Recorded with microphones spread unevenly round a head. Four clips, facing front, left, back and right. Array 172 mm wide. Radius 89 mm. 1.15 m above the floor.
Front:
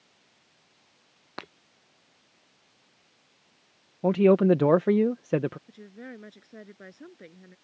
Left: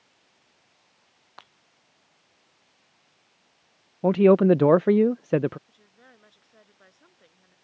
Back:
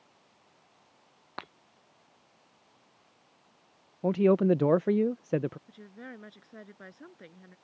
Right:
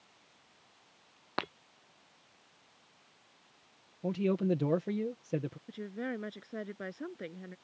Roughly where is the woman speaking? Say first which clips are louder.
Right 18 dB, front 3 dB; right.